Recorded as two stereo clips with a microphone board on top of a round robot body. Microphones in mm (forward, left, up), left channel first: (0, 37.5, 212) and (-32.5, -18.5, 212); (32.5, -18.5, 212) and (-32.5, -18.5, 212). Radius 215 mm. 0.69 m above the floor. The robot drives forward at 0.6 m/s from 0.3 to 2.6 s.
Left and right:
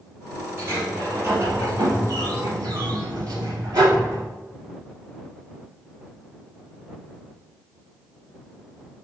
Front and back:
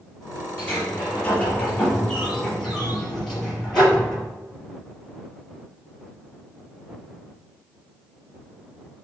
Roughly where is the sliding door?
Ahead right.